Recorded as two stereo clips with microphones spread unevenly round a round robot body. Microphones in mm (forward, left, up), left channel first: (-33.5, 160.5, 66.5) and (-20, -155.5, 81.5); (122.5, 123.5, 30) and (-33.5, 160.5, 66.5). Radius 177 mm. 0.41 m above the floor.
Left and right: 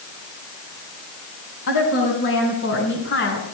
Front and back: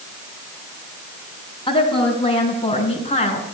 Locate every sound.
1.7 s a woman speaking: 45° left, 5 m; by 3.4 s 35° left, 4.5 m